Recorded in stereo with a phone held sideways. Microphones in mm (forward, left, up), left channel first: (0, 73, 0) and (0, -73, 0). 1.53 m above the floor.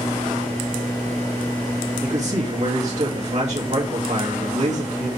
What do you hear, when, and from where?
2.0 s a man speaking: 50° right (ahead or behind), 2 m